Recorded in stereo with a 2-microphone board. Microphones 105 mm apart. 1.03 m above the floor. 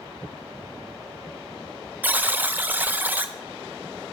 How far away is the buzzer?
About 0.5 m.